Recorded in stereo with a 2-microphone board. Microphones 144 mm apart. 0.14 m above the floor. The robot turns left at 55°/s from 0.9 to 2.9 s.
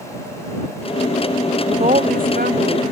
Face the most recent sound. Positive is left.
turn(degrees=-110)